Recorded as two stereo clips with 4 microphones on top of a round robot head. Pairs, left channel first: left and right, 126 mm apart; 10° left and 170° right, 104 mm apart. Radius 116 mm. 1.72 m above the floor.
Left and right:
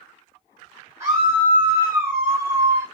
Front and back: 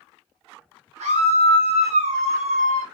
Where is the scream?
160° right, 1.8 m; by 2.9 s 165° right, 0.5 m.